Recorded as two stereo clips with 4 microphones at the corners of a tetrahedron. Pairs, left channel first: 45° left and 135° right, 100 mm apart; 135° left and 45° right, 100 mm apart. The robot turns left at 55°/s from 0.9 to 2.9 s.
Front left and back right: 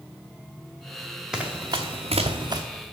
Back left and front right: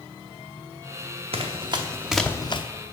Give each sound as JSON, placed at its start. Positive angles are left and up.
{"t": 1.3, "sound": "running footsteps", "azimuth_deg": -50, "distance_m": 1.0}